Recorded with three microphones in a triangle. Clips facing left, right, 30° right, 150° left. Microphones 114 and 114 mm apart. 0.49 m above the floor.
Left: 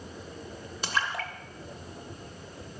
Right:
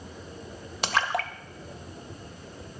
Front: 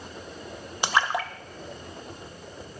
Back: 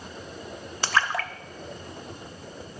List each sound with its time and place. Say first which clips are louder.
0.8 s a splash: right 5 dB, front 1 dB; 105° right, 0.5 m